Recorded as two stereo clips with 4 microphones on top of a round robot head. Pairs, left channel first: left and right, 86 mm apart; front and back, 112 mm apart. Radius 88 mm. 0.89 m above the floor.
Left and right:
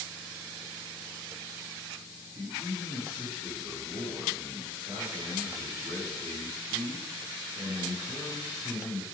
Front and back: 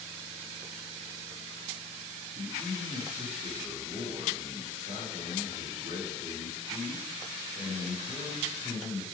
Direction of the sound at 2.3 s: 145° right.